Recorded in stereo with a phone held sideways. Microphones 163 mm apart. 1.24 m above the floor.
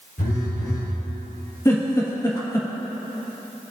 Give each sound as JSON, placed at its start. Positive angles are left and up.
{"t": 0.2, "sound": "a phone buzzing", "side_deg": 75, "distance_m": 3.5}
{"t": 1.6, "sound": "a giggle", "side_deg": 20, "distance_m": 1.8}